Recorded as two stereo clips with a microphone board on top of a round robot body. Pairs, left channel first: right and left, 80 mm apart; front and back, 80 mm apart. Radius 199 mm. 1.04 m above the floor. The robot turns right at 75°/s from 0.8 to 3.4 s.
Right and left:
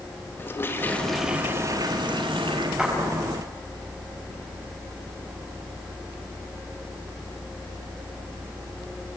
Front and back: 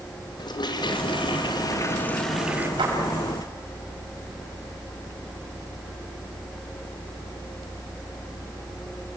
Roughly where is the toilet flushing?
Ahead right.